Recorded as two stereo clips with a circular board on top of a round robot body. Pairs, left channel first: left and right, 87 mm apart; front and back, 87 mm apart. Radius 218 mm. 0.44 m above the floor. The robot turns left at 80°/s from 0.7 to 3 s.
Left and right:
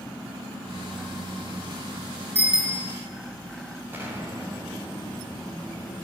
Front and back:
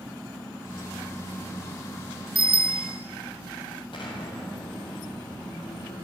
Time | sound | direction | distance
2.4 | a bicycle bell | 155° right | 2.5 m
3.9 | an explosion | 25° right | 3 m